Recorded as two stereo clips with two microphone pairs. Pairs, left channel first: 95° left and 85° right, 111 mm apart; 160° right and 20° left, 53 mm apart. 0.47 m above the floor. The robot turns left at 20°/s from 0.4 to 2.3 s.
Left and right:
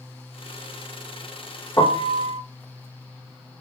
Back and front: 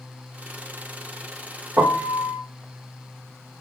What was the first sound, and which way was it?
A piano, 40° left.